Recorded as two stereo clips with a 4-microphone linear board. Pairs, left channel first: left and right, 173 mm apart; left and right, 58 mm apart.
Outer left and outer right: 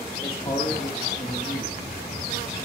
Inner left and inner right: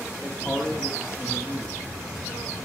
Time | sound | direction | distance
0.2 | a man speaking | 45° left (ahead or behind) | 3.5 m